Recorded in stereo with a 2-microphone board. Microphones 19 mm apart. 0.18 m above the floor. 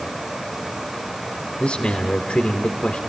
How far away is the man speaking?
About 2.5 m.